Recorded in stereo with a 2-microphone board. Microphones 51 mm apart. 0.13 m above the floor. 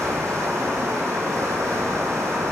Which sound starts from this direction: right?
Running water, at 0.0 s.